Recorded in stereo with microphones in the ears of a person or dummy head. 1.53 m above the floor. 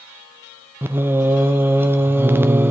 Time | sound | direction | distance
0.8 | singing | 10° right (ahead or behind) | 0.6 m